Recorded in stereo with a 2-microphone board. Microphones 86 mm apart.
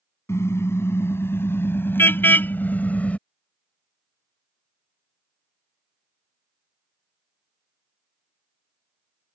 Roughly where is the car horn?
Left.